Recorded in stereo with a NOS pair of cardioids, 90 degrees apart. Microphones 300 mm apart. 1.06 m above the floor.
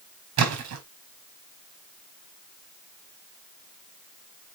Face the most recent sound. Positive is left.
turn(degrees=-60)